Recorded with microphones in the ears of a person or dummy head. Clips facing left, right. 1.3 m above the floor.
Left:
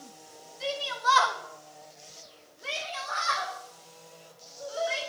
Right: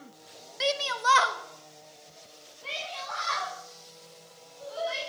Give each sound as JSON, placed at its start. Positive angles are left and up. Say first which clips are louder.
{"t": 0.6, "sound": "a shout", "louder": "right 3 dB", "side_deg": -80, "distance_m": 1.0}